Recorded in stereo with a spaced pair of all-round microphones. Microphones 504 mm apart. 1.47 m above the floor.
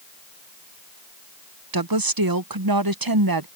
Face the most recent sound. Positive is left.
turn(degrees=-45)  # may be behind; listen again after turning